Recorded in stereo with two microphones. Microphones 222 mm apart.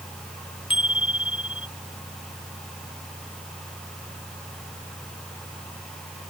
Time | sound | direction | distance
0.7 | a bicycle bell | 25° left (ahead or behind) | ?